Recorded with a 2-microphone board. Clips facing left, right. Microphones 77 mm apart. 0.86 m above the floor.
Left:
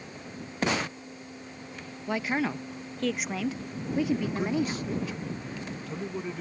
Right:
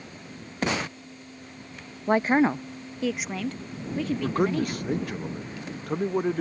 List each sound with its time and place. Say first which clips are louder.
2.1 s a woman speaking: right 8 dB; 40° right (ahead or behind); by 4.9 s 15° left (ahead or behind)
4.2 s a man speaking: right 4 dB; 50° right (ahead or behind)